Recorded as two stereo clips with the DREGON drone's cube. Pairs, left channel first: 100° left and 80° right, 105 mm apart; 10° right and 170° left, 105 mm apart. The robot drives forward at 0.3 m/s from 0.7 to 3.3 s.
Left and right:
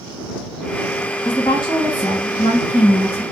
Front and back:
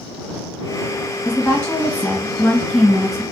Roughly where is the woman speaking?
Ahead left.